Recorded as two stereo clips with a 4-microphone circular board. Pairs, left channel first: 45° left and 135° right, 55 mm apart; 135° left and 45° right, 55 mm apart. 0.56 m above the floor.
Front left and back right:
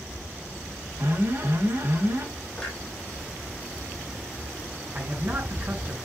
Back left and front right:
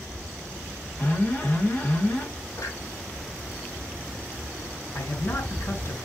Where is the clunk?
125° left, 7.5 m.